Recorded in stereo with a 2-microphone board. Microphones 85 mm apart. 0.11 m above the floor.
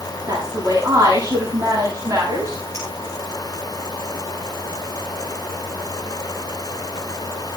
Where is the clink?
40° right (ahead or behind), 10 m.